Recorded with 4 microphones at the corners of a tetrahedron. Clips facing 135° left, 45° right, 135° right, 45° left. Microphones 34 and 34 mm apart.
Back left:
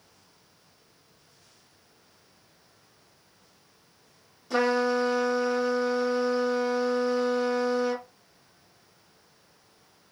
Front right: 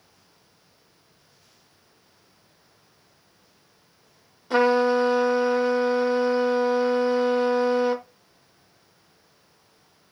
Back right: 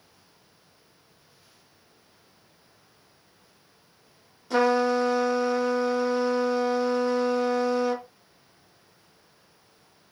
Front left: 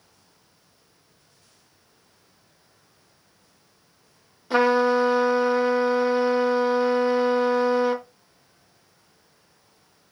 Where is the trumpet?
5° right, 0.6 m.